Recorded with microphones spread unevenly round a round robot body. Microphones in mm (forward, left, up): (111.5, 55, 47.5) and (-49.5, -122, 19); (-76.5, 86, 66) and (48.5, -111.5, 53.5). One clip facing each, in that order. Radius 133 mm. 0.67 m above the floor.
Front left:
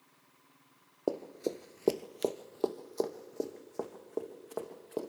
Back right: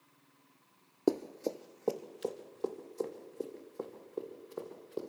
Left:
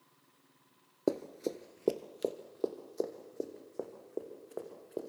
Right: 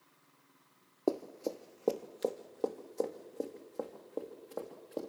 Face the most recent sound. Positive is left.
turn(degrees=35)